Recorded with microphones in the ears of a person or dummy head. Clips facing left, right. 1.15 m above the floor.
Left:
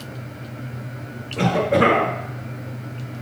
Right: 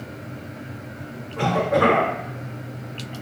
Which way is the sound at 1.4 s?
30° left (ahead or behind).